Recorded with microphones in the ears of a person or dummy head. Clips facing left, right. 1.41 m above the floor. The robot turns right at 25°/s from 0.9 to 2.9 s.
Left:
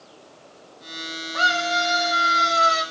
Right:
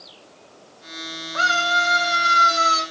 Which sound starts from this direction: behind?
A scream, at 1.3 s.